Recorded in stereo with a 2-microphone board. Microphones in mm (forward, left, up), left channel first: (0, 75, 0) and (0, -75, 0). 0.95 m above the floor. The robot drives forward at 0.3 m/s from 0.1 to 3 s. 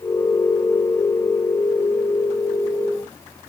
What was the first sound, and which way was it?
Only background noise.